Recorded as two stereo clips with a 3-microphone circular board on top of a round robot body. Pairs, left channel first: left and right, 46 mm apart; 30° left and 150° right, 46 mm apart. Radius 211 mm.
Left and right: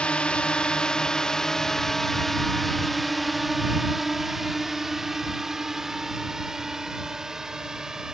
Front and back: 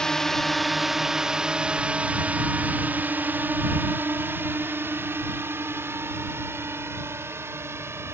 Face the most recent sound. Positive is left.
turn(degrees=-165)